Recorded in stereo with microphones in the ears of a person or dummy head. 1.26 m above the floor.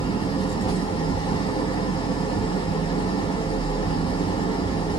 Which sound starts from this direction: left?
An engine running, at 0.0 s.